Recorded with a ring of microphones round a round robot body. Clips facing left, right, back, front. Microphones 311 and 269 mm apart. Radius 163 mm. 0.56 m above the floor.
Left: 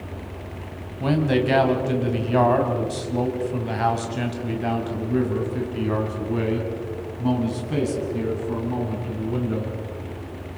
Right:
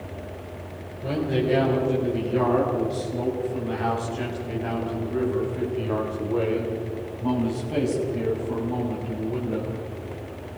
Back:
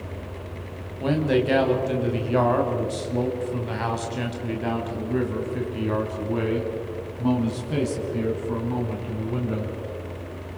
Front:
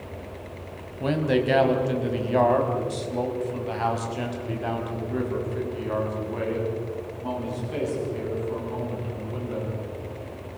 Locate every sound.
1.0 s a man speaking: 90° left, 4 m; by 9.8 s 155° left, 6 m